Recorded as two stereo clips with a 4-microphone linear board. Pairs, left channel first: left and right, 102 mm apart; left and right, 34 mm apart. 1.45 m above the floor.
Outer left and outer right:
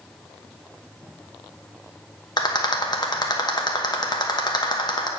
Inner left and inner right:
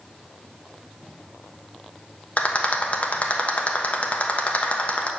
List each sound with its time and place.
2.4 s a rattle: 45° left (ahead or behind), 1.1 m